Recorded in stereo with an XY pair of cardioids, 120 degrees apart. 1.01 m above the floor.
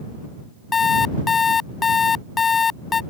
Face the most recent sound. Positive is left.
turn(degrees=30)